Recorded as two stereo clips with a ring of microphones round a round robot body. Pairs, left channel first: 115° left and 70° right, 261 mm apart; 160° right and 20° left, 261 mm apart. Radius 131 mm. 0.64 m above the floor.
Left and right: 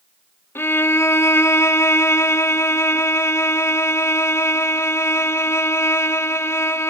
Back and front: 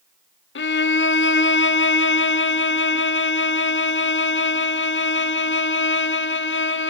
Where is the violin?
170° right, 1.4 m.